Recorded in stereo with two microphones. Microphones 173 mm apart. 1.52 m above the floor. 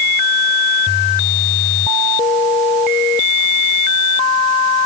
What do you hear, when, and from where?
Only background noise.